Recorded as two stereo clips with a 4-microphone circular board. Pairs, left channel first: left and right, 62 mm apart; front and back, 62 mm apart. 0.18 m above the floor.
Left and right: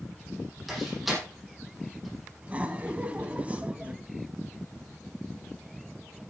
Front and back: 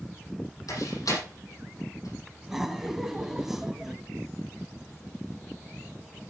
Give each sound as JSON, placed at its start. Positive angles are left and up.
{"t": 0.7, "sound": "a door slam", "azimuth_deg": 0, "distance_m": 6.0}
{"t": 2.4, "sound": "laughter", "azimuth_deg": -105, "distance_m": 1.3}